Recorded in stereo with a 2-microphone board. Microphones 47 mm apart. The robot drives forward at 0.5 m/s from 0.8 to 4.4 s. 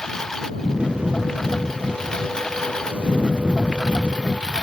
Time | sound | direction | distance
0.0 | a lawn mower | 15° left (ahead or behind) | ?